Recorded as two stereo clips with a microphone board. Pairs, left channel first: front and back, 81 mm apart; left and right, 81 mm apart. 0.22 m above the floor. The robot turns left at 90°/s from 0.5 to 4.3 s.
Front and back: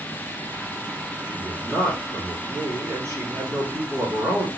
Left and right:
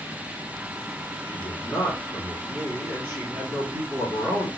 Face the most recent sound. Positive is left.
turn(degrees=-140)